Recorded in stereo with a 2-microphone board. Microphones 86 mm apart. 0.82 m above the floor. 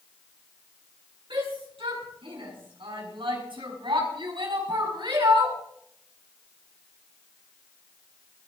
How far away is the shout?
About 6.5 m.